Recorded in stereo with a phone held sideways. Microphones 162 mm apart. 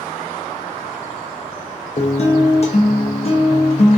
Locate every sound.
2.0 s a guitar: 45° left (ahead or behind), 0.6 m